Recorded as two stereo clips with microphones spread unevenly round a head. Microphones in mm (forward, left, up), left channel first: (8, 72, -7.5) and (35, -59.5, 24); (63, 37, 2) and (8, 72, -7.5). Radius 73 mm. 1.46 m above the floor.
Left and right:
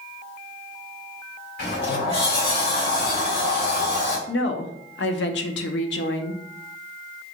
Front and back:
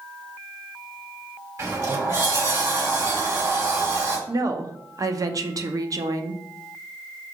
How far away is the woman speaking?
About 0.6 m.